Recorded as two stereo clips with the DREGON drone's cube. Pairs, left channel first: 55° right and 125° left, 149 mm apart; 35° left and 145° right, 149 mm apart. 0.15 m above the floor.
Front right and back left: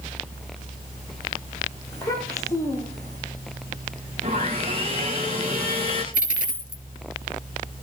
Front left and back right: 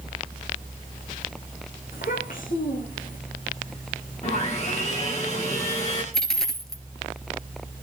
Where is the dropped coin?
55° right, 1.4 m.